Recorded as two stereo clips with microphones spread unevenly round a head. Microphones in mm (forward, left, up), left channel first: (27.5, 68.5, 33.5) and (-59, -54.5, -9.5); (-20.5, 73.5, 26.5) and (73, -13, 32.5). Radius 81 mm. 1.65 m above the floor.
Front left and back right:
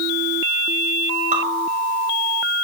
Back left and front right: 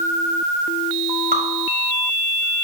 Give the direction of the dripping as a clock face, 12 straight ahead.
3 o'clock.